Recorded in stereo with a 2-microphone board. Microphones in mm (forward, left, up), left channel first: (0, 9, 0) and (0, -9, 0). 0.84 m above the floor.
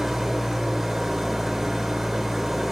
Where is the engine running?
10° right (ahead or behind), 0.9 m.